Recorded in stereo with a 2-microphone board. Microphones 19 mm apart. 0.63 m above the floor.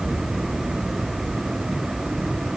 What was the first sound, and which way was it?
Only background noise.